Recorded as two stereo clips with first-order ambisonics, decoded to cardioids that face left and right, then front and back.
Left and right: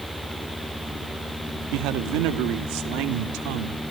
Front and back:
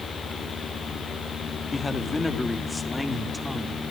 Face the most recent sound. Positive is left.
turn(degrees=-90)